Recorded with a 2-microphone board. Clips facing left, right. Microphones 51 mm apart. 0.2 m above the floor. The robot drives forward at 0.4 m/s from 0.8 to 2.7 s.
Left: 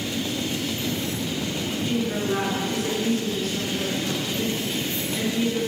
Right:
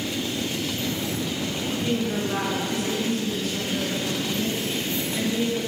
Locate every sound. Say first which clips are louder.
1.8 s a woman speaking: left 1 dB; 5° right (ahead or behind), 2.5 m